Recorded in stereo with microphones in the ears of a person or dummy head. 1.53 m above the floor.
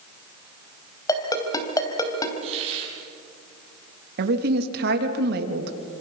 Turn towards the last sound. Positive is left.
turn(degrees=-65)  # may be behind; listen again after turning